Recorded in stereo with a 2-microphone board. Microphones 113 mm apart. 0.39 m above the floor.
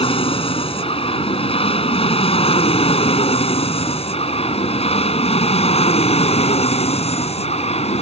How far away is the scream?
No scream in this recording.